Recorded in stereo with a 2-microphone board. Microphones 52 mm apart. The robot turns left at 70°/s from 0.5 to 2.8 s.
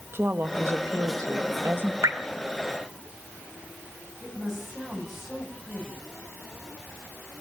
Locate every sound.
0.1 s a woman speaking: 45° right, 1.2 m; by 1.9 s 145° right, 1.2 m
2.0 s dripping: 80° right, 2.5 m
4.2 s a woman speaking: 5° right (ahead or behind), 8.5 m